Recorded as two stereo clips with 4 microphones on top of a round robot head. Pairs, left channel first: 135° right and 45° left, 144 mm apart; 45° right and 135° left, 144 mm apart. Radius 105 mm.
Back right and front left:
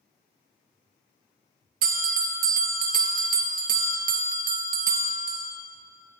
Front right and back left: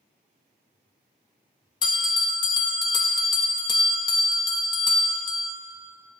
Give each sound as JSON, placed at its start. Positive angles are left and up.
{"t": 1.8, "sound": "a bell", "azimuth_deg": 15, "distance_m": 0.7}